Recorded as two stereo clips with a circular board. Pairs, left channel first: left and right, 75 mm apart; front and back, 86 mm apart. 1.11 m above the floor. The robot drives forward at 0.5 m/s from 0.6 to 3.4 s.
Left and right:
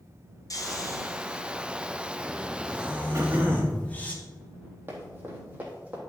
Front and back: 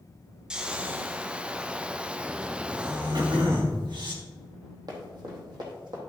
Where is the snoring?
105° left, 0.9 m; by 4.1 s 155° left, 1.8 m.